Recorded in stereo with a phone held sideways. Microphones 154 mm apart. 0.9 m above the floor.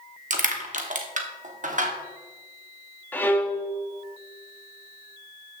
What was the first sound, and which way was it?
Crushing, 55° right (ahead or behind).